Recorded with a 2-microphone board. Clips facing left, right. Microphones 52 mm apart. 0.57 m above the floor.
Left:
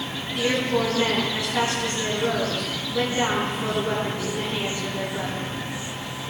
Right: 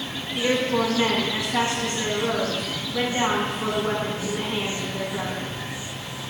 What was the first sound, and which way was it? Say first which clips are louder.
A woman speaking: right 1 dB; 25° right (ahead or behind).